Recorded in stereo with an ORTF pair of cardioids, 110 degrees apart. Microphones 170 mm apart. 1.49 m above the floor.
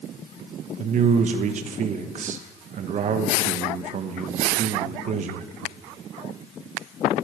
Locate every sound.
0.8 s a man speaking: 50° right, 1.3 m